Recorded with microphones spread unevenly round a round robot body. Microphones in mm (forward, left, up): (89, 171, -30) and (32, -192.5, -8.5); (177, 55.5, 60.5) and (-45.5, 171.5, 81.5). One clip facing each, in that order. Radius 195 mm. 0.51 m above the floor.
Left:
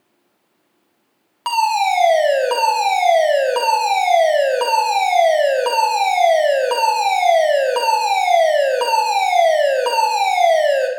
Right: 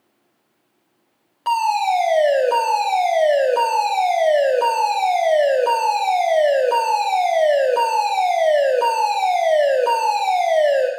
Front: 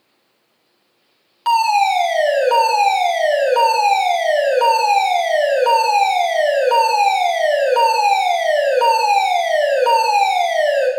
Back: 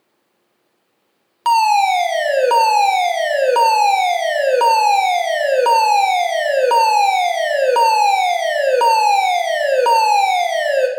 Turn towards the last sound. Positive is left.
turn(degrees=145)